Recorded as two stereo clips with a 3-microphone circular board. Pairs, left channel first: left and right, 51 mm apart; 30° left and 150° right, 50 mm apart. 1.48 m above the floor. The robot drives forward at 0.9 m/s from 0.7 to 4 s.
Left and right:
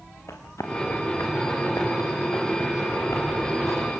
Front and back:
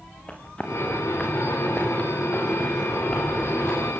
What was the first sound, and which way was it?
Running footsteps, 95° left.